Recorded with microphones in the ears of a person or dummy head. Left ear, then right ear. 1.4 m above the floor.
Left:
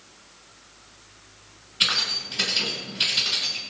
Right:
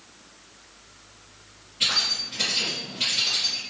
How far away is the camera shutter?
I don't hear a camera shutter.